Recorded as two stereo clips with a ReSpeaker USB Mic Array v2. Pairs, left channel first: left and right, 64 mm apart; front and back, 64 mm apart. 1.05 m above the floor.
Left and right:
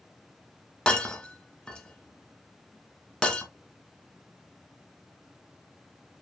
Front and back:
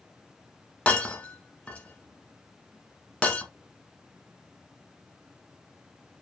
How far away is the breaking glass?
About 1.0 m.